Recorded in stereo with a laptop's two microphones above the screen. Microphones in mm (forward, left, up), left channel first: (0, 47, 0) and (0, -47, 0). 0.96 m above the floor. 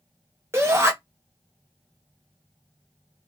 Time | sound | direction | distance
0.5 | a shout | 25° right (ahead or behind) | 0.9 m